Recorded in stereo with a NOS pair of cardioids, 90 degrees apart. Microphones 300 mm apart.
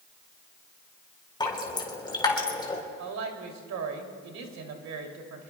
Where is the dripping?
15° left, 3.5 m.